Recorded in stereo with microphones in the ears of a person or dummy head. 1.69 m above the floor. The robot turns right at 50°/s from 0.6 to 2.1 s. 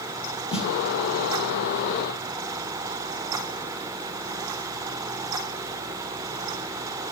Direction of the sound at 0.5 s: 35° left (ahead or behind).